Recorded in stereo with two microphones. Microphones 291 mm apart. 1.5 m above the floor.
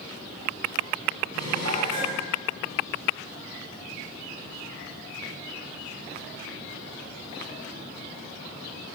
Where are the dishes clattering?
60° right (ahead or behind), 10 m.